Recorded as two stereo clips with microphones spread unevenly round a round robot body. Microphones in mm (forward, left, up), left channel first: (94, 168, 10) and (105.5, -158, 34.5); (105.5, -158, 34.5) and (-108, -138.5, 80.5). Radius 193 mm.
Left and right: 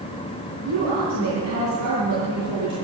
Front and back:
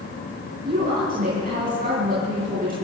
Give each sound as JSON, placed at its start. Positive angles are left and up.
{"t": 0.7, "sound": "a woman speaking", "azimuth_deg": -135, "distance_m": 5.5}